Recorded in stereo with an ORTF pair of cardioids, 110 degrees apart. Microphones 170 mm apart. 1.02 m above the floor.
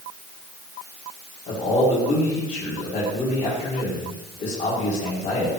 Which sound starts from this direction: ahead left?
A man speaking, at 1.5 s.